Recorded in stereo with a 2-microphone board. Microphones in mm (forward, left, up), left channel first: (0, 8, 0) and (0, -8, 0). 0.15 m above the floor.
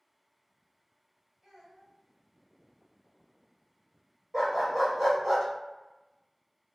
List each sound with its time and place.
1.4 s a child speaking: 50° right (ahead or behind), 1.6 m
4.3 s a dog barking: 60° right (ahead or behind), 1.5 m